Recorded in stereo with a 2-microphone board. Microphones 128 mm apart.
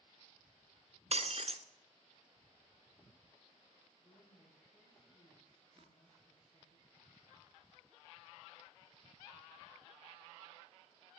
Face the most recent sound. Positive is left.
turn(degrees=-45)  # may be behind; listen again after turning